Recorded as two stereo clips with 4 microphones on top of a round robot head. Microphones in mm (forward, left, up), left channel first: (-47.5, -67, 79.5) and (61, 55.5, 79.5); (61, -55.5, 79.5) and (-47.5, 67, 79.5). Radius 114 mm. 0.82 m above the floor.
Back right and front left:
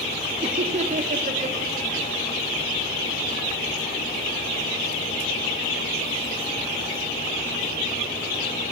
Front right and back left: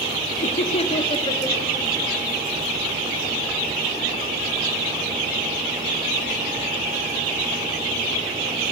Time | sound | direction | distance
0.4 | laughter | 5° right | 2.5 m